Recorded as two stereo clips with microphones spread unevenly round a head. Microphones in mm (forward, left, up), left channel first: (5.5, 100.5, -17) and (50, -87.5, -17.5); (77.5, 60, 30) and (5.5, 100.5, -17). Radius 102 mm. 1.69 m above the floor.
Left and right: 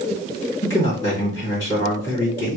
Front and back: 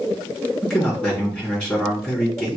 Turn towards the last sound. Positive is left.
turn(degrees=30)